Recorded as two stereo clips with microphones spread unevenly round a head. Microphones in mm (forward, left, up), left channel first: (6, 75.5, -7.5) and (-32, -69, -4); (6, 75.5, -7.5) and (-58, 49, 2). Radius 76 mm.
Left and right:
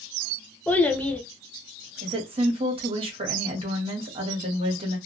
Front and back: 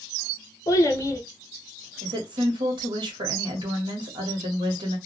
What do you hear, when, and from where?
0.7 s a child speaking: straight ahead, 0.5 m
2.0 s a woman speaking: 160° right, 1.0 m